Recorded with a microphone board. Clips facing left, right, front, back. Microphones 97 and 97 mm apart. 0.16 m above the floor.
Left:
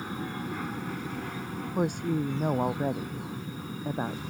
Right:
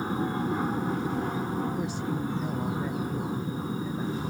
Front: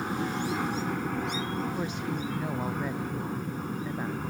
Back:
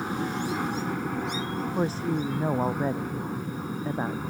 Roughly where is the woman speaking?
Behind left.